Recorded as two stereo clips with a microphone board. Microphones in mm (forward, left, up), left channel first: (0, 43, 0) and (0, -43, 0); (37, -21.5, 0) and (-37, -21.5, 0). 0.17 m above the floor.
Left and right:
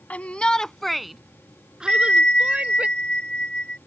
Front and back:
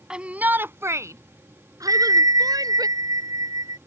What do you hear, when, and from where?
0.1 s a shout: 125° left; by 2.9 s 165° right
1.9 s a bell: 165° left